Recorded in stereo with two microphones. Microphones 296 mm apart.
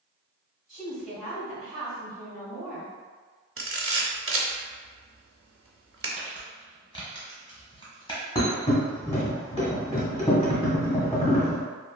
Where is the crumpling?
15° left (ahead or behind), 1.1 m.